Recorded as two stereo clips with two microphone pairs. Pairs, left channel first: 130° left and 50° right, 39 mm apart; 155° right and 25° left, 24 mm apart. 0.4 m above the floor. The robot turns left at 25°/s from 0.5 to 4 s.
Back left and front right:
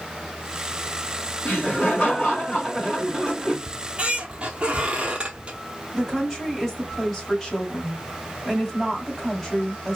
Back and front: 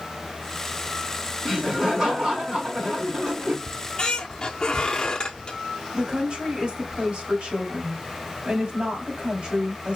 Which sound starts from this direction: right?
A squeak, at 3.7 s.